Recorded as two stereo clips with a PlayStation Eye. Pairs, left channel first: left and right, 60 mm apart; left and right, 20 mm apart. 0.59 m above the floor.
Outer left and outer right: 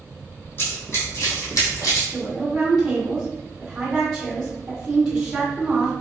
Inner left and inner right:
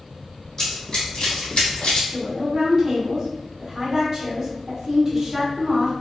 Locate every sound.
0.6 s running footsteps: 40° left (ahead or behind), 1.8 m; by 2.0 s 65° left (ahead or behind), 1.6 m
2.1 s a woman speaking: 10° right (ahead or behind), 1.6 m